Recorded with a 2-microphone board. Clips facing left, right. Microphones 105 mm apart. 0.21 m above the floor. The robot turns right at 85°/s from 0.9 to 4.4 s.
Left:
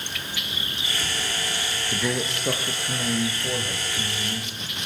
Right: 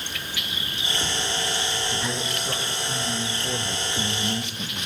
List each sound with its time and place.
1.9 s a man speaking: 45° left, 4.5 m; by 4.9 s 105° right, 4.5 m